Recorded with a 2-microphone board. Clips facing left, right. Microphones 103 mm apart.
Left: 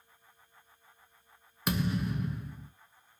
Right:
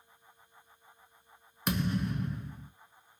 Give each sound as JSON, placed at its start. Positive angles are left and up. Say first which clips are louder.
{"t": 1.7, "sound": "a thud", "louder": "even", "side_deg": 5, "distance_m": 0.7}